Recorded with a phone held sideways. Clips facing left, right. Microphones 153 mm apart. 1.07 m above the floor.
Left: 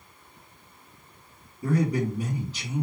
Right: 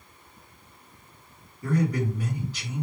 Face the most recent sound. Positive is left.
turn(degrees=25)  # may be behind; listen again after turning